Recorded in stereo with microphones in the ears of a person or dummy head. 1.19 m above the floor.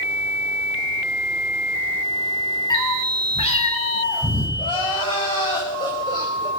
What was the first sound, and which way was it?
A cat meowing, 20° left (ahead or behind).